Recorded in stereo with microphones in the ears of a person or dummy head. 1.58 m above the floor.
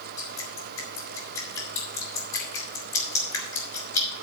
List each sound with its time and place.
0.2 s dripping: 15° left (ahead or behind), 2.5 m